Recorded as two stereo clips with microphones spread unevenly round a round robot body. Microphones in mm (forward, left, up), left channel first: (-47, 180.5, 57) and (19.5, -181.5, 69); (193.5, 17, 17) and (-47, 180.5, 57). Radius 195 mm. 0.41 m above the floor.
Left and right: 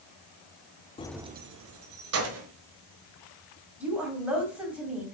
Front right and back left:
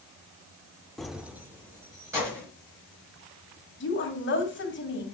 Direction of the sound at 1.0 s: 40° left.